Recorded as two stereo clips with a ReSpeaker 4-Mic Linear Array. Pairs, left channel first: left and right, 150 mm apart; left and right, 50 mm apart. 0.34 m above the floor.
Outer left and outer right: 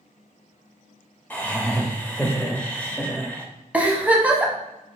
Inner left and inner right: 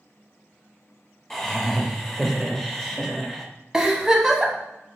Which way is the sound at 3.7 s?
10° right (ahead or behind).